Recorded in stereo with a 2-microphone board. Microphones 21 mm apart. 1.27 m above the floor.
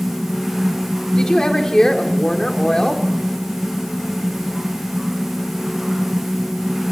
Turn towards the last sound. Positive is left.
turn(degrees=30)  # may be behind; listen again after turning